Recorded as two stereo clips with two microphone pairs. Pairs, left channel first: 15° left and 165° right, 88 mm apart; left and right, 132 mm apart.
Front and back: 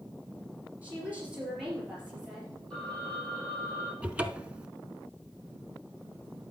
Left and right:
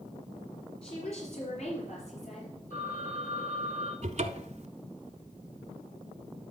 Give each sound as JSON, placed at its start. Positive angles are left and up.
{"t": 0.8, "sound": "a woman speaking", "azimuth_deg": 125, "distance_m": 3.0}
{"t": 2.7, "sound": "a phone ringing", "azimuth_deg": 100, "distance_m": 5.0}
{"t": 4.0, "sound": "a cupboard door", "azimuth_deg": -90, "distance_m": 0.6}